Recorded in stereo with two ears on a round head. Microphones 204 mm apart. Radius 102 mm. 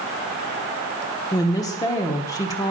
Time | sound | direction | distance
1.3 | a woman speaking | 15° left (ahead or behind) | 0.9 m